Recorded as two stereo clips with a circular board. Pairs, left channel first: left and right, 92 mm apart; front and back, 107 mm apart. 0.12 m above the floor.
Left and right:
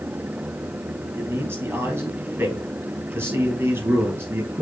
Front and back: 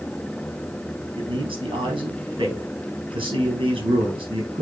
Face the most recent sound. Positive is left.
turn(degrees=-150)